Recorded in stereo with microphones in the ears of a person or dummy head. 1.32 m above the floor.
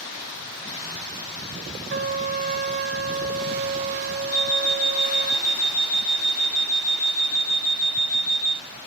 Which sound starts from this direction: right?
A trumpet, at 1.9 s.